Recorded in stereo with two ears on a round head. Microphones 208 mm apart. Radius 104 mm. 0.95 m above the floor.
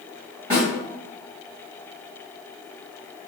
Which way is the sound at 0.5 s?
25° right (ahead or behind).